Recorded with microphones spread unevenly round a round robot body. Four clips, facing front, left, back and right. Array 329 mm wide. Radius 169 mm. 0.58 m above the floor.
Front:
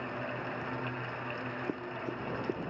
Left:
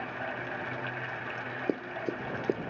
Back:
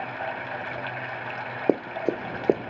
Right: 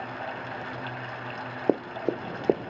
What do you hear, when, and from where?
0.0 s running water: 170° right
1.7 s running footsteps: 150° right